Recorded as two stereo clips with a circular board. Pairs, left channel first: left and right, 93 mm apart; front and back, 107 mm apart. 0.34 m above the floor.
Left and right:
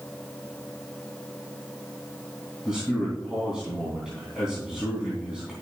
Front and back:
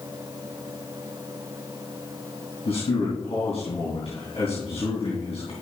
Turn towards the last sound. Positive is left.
turn(degrees=-5)